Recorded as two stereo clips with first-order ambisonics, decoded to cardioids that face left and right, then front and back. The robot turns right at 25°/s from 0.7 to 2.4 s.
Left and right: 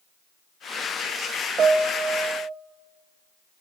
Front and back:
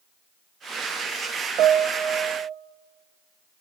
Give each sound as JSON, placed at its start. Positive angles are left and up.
{"t": 1.6, "sound": "a piano", "azimuth_deg": -145, "distance_m": 1.4}